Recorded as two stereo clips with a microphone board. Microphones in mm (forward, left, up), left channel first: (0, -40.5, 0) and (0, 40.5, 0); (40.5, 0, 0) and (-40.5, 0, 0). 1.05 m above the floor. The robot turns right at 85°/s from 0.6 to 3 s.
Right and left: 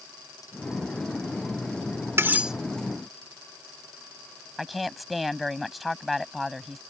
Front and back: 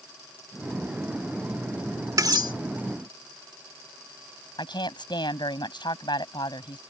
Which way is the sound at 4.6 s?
Straight ahead.